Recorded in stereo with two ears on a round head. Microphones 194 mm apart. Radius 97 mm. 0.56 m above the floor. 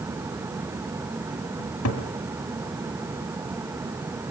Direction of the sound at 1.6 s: 80° left.